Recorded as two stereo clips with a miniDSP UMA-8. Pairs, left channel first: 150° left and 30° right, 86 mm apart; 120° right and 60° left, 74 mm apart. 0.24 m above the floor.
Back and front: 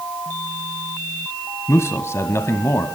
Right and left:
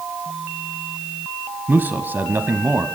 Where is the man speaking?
110° left, 1.2 m.